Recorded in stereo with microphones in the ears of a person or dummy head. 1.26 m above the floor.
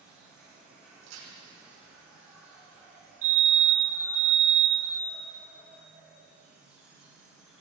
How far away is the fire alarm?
About 3.5 m.